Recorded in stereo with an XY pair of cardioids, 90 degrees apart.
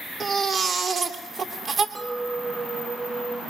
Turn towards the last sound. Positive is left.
turn(degrees=-30)